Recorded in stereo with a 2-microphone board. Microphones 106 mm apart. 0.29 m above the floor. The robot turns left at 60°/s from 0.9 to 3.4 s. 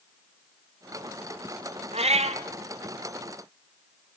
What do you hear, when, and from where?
1.9 s a cat meowing: 65° right (ahead or behind), 1.1 m; by 2.4 s 80° right, 1.1 m